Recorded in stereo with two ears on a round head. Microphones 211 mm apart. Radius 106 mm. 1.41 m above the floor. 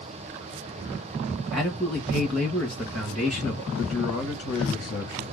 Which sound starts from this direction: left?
A man speaking, at 3.8 s.